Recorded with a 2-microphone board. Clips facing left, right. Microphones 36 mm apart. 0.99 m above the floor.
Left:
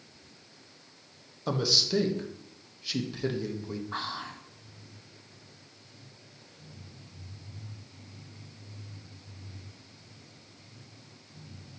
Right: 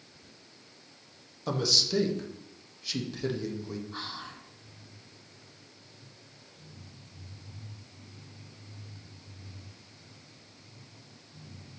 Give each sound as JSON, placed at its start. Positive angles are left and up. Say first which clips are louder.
{"t": 1.5, "sound": "a man speaking", "louder": "left 1 dB", "side_deg": 5, "distance_m": 0.8}
{"t": 3.9, "sound": "whispering", "louder": "left 4 dB", "side_deg": 70, "distance_m": 0.7}